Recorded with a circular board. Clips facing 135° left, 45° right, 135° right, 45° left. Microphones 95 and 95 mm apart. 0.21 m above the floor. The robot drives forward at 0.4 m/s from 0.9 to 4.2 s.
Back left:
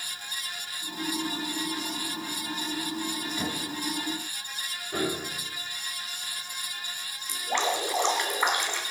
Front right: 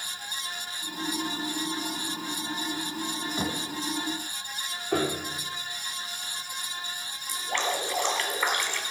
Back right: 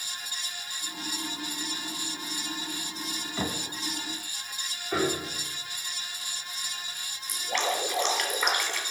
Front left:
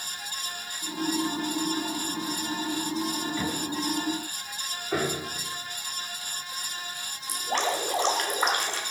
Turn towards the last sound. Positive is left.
turn(degrees=75)